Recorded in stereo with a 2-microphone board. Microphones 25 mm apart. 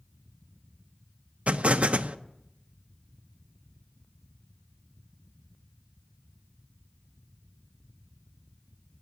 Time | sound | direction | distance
1.5 | an explosion | 60° right (ahead or behind) | 0.6 m